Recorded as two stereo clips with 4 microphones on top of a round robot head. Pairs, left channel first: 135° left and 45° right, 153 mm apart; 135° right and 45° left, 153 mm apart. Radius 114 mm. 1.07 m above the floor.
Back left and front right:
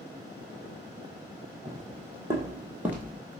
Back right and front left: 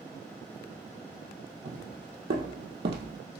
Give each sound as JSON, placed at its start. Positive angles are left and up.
{"t": 1.6, "sound": "footsteps", "azimuth_deg": 25, "distance_m": 2.5}